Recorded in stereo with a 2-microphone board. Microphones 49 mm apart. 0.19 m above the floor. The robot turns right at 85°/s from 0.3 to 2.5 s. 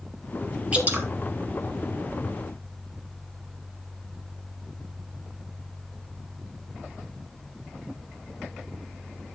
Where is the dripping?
25° right (ahead or behind), 3.5 m; by 1.1 s 55° right (ahead or behind), 3.5 m.